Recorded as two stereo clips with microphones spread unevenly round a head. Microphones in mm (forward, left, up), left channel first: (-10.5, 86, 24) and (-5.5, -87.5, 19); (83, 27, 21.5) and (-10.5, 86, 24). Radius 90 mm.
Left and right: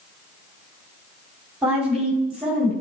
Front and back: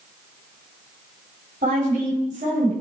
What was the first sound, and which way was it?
A woman speaking, 175° right.